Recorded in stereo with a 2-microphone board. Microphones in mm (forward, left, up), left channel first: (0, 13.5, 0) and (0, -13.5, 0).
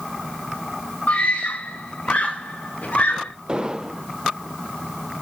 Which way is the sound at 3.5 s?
30° right (ahead or behind).